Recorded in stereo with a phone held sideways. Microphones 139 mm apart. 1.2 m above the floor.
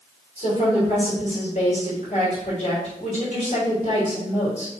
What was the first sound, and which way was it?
A woman speaking, 60° left (ahead or behind).